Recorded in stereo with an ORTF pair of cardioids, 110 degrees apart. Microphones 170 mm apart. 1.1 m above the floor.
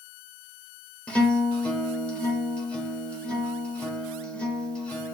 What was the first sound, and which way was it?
A guitar, 5° left.